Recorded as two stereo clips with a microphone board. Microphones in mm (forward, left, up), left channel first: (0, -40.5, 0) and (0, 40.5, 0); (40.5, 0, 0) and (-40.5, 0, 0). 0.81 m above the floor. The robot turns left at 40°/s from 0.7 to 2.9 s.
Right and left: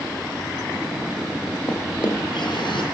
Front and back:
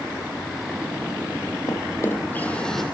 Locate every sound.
1.7 s a drawer: 45° right, 10 m; by 2.8 s 90° right, 10 m